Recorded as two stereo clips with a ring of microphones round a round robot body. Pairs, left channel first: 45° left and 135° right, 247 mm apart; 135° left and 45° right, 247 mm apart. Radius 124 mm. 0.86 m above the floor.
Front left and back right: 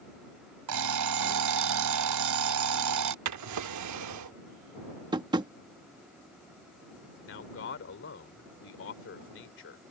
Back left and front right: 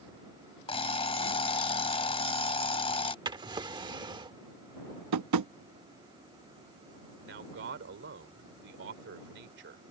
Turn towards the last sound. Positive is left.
turn(degrees=0)